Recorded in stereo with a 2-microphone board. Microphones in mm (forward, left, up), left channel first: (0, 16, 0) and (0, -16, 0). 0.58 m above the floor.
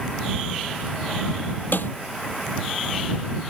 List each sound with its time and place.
1.7 s a snare drum: 75° left (ahead or behind)